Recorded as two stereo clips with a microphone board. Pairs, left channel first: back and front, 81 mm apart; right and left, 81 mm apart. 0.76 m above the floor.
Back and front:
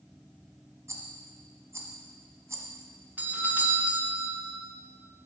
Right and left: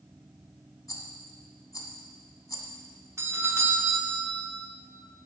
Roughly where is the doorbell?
Ahead left.